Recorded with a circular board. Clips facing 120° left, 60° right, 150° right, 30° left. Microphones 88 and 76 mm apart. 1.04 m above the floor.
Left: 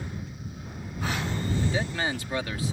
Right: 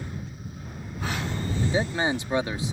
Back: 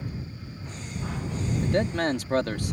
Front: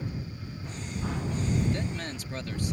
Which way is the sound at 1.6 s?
130° right.